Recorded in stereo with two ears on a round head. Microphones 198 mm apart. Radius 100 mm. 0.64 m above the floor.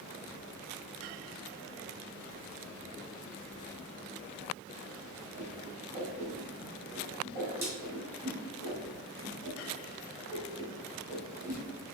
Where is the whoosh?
15° right (ahead or behind), 1.8 m.